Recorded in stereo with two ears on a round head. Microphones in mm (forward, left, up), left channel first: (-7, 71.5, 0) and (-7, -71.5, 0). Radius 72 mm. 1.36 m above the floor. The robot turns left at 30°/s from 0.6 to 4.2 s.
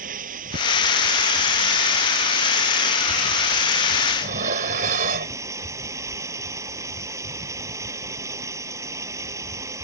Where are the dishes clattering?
55° right (ahead or behind).